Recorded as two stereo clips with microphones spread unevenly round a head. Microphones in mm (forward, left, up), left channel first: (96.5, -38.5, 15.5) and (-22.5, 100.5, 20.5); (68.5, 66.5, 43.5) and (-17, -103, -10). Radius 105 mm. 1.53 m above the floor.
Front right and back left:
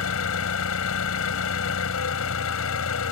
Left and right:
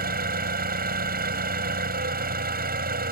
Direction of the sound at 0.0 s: 70° right.